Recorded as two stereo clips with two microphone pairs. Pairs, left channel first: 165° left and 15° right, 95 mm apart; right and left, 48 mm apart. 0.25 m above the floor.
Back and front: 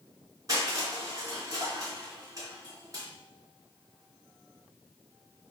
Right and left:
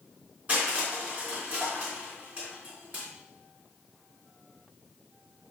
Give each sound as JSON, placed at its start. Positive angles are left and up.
{"t": 0.5, "sound": "crushing", "azimuth_deg": 35, "distance_m": 3.0}